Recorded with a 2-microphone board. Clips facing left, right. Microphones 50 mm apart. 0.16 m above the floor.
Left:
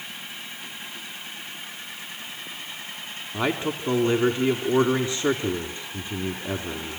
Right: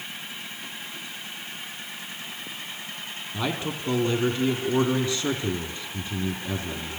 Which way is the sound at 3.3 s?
25° left (ahead or behind).